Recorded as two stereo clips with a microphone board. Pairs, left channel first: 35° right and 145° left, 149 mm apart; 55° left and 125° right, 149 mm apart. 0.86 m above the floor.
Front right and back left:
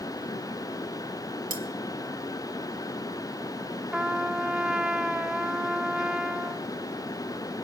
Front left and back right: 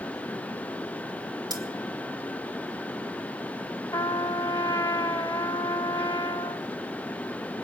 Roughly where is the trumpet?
Left.